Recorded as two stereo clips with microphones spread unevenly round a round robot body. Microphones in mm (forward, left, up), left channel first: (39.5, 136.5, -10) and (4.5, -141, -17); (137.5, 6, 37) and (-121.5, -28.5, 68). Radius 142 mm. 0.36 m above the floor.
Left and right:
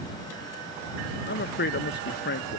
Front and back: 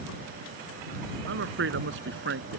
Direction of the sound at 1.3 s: 140° left.